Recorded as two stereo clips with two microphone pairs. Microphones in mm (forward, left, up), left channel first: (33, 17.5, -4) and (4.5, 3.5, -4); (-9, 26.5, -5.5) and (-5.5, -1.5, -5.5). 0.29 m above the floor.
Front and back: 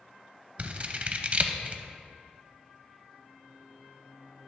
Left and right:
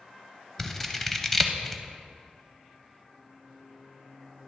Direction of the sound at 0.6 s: 170° left.